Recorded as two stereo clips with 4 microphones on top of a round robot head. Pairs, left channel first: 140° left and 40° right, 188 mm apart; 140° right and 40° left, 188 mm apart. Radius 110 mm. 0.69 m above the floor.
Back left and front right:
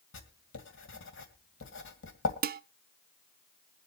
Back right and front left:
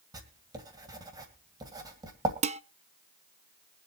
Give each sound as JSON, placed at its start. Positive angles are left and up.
{"t": 0.1, "sound": "writing", "azimuth_deg": 115, "distance_m": 2.0}
{"t": 2.4, "sound": "dishes clattering", "azimuth_deg": -10, "distance_m": 0.6}